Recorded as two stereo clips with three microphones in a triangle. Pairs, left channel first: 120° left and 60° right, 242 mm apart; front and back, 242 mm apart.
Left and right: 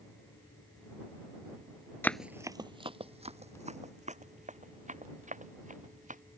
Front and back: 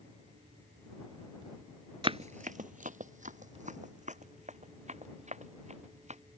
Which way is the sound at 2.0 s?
175° right.